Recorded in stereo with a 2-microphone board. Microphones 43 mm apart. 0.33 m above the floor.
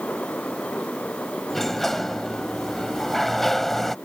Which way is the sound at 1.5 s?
5° left (ahead or behind).